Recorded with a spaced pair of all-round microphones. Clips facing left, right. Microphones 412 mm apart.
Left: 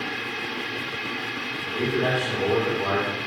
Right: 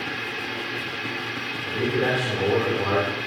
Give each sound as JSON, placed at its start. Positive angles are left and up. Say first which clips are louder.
{"t": 0.0, "sound": "a machine running", "louder": "even", "side_deg": -35, "distance_m": 3.0}
{"t": 1.6, "sound": "a man speaking", "louder": "right 1 dB", "side_deg": -40, "distance_m": 5.5}